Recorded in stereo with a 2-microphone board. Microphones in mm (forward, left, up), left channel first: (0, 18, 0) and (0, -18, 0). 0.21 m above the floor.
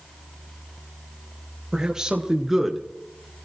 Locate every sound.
1.7 s a man speaking: 25° right (ahead or behind), 3.5 m; by 2.8 s 5° right (ahead or behind), 2.5 m